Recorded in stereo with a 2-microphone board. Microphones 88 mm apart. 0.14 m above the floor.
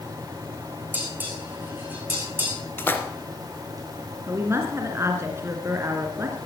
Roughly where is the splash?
Left.